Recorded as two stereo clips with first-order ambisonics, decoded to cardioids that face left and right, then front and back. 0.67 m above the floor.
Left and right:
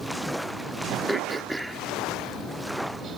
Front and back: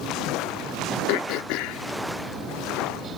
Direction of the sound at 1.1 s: 5° right.